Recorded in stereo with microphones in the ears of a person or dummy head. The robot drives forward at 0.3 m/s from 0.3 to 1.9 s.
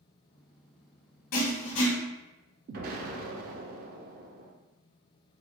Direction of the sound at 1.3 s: 40° left (ahead or behind).